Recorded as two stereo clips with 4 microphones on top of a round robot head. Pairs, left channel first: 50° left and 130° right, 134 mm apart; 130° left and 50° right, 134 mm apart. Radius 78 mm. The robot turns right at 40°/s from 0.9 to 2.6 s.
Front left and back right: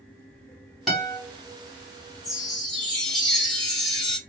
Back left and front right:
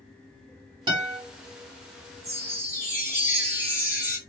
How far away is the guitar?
About 1.3 m.